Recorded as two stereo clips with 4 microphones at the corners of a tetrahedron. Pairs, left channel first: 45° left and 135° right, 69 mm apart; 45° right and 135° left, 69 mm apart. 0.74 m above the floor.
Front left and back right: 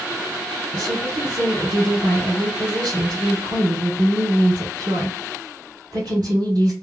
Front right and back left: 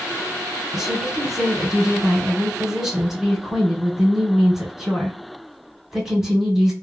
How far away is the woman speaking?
About 1.8 m.